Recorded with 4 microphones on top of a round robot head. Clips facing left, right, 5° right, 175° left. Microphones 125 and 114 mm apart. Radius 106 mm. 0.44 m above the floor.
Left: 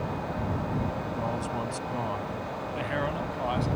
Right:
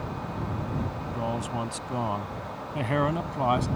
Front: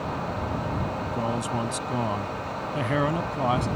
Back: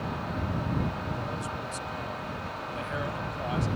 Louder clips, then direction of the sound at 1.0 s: Even, front 6 dB; 10° right.